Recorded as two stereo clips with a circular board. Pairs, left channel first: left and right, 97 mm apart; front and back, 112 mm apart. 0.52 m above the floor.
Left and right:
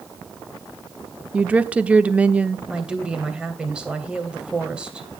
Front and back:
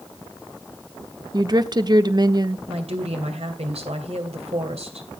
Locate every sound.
1.3 s a woman speaking: 155° right, 0.9 m
2.7 s a woman speaking: 170° right, 2.5 m